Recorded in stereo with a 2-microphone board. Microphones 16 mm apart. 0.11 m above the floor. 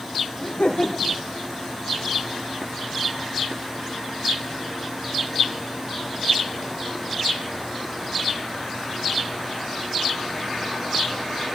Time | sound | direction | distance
0.4 | laughter | 75° left (ahead or behind) | 5.5 m